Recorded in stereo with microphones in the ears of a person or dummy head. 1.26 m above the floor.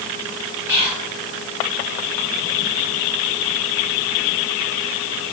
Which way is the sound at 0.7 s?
85° left.